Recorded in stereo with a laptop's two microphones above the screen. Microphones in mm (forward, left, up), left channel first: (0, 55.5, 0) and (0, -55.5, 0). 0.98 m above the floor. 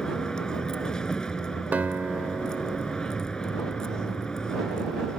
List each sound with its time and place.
0.0 s a vehicle: 5° left (ahead or behind)
1.7 s a guitar: 15° right (ahead or behind)